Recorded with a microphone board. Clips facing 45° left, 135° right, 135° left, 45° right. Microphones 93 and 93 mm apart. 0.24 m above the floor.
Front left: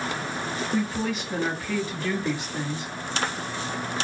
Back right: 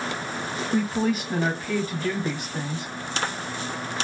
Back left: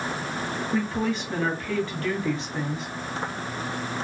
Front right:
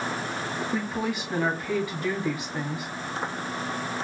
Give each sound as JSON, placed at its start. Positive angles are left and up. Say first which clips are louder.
{"t": 0.7, "sound": "a woman speaking", "louder": "back right 4 dB, back left 4 dB", "azimuth_deg": -120, "distance_m": 1.7}